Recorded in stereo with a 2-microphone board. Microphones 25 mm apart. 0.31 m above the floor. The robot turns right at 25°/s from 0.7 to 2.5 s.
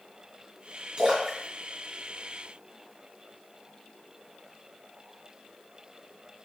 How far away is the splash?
About 1.7 m.